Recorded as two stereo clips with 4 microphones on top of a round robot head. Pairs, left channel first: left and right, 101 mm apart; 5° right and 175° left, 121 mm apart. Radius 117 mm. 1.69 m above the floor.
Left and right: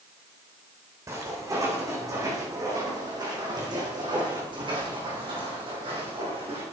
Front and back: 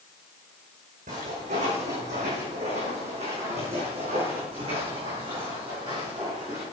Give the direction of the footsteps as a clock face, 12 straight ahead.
5 o'clock.